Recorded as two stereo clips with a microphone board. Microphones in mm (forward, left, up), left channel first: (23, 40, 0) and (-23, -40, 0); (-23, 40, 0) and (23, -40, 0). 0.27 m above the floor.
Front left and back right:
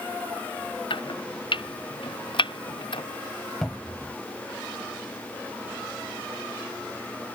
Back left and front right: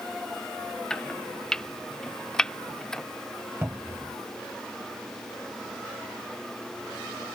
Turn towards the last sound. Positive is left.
turn(degrees=-20)